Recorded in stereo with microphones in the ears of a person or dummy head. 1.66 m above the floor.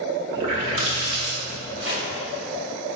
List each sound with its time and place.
0.3 s a running tap: 25° right (ahead or behind), 0.7 m
1.8 s chopping: 45° right (ahead or behind), 1.2 m